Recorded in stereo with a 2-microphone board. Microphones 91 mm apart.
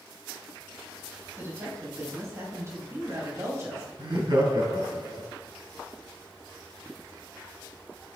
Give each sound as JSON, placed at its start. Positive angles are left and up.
{"t": 1.4, "sound": "a woman speaking", "side_deg": -30, "distance_m": 3.0}
{"t": 4.0, "sound": "laughter", "side_deg": -60, "distance_m": 4.0}